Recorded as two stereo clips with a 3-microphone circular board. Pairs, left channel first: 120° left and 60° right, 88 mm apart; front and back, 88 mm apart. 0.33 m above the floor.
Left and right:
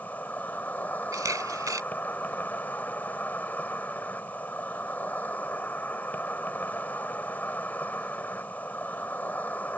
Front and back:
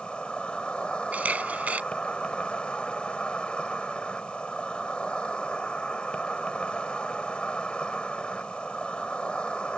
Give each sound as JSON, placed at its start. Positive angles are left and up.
{"t": 0.0, "sound": "an insect", "azimuth_deg": 70}
{"t": 1.1, "sound": "a camera shutter", "azimuth_deg": -105}